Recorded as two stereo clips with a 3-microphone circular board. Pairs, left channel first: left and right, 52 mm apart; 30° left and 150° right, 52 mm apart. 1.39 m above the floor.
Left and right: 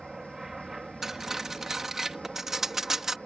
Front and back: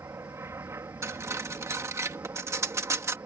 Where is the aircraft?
175° right; by 3.3 s straight behind.